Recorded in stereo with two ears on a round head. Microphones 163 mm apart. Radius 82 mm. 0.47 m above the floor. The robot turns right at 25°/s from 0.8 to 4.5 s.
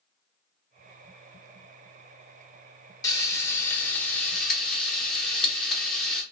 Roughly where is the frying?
Behind left.